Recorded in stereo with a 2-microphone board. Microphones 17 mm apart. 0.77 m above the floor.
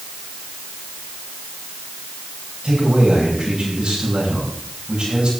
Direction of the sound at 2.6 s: 80° right.